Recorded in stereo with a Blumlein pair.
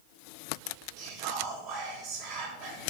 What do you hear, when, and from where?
1.0 s whispering: 40° right, 6.5 m